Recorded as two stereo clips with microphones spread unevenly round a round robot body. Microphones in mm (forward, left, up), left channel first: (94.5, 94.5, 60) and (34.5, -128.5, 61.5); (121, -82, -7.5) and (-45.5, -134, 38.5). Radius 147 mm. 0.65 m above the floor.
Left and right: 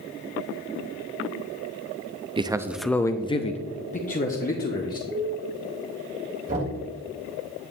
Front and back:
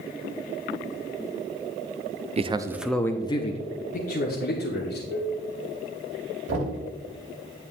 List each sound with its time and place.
2.4 s a man speaking: 125° right, 0.5 m; by 5.0 s 25° left, 1.5 m
5.1 s dishes clattering: 145° left, 4 m
6.5 s knocking: 165° right, 2.5 m